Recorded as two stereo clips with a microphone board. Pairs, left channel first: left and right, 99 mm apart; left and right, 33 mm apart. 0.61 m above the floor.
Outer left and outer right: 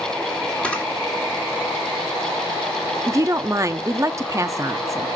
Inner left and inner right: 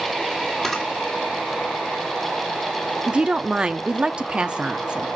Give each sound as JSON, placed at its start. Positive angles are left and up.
{"t": 0.6, "sound": "a camera shutter", "side_deg": 10, "distance_m": 2.0}
{"t": 3.1, "sound": "a woman speaking", "side_deg": -30, "distance_m": 0.7}